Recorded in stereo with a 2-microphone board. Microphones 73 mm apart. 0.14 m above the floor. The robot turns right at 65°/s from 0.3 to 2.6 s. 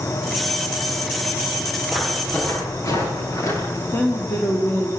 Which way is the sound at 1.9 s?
Centre (ahead or behind).